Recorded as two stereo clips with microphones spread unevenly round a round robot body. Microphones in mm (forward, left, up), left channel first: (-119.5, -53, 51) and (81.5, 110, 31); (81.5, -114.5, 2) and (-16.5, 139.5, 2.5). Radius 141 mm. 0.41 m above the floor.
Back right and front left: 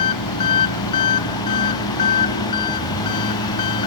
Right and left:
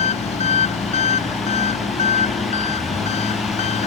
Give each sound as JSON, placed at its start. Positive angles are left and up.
{"t": 0.0, "sound": "an engine running", "azimuth_deg": -135}